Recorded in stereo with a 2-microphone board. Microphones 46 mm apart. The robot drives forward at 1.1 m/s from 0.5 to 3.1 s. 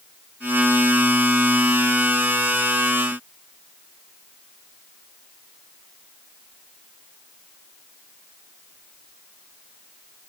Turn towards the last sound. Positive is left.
No sound to turn to.